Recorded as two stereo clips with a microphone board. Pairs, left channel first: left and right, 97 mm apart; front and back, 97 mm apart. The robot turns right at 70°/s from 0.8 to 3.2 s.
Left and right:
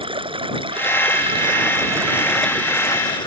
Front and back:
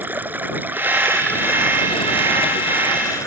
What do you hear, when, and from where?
0.0 s running water: 110° right; by 3.3 s 60° left